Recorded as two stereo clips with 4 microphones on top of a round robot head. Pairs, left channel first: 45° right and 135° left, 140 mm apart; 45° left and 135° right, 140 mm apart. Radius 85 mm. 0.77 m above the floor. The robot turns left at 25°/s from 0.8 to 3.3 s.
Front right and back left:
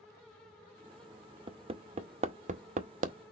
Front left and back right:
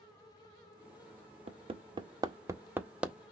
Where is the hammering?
175° right, 0.8 m; by 3.2 s 140° left, 0.8 m.